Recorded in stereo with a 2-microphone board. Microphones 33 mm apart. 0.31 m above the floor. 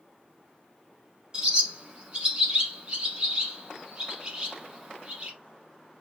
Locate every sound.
1.3 s a bird: 25° right (ahead or behind), 1.0 m